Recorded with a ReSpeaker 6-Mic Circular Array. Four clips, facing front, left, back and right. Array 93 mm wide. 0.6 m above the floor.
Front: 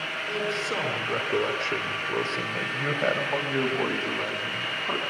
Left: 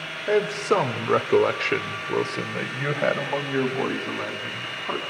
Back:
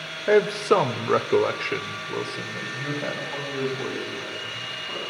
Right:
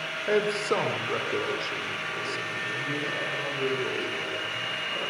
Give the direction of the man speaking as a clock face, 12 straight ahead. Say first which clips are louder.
Left 4 dB, back 12 dB; 6 o'clock.